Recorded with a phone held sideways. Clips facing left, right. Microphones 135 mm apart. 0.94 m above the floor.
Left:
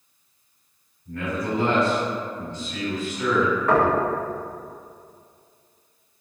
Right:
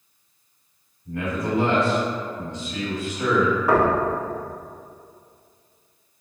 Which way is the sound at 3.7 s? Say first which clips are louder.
Even; 10° right (ahead or behind).